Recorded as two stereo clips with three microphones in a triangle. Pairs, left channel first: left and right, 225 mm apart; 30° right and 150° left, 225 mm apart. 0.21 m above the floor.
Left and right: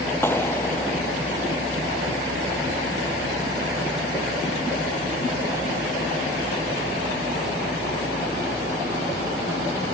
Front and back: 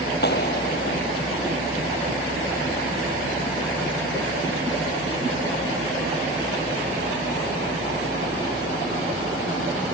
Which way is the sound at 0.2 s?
10° left.